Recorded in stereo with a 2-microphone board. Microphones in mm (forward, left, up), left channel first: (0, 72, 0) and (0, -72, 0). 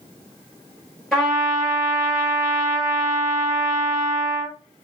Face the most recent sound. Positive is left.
turn(degrees=0)  # may be behind; listen again after turning